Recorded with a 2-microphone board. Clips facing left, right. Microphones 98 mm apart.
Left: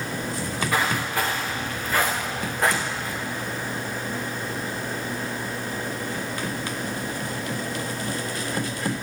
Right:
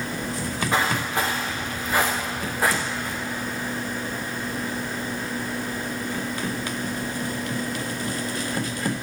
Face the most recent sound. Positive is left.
turn(degrees=5)  # may be behind; listen again after turning